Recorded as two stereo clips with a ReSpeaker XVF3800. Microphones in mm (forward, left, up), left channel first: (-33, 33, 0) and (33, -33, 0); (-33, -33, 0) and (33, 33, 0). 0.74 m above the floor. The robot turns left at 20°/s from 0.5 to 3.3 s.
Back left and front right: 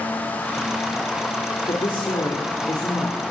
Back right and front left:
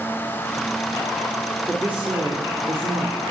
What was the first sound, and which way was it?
A woman speaking, 120° left.